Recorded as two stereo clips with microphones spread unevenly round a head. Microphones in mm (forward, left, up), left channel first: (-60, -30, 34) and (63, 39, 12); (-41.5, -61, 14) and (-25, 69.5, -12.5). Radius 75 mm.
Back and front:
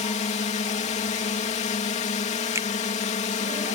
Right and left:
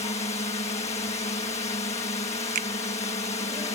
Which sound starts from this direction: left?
A finger snap, at 2.5 s.